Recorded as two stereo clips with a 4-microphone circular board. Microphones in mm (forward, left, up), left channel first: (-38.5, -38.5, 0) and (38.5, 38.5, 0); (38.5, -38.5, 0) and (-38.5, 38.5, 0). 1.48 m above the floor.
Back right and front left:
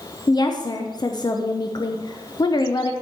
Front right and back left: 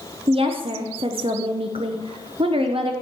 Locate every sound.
0.3 s a woman speaking: 170° left, 0.8 m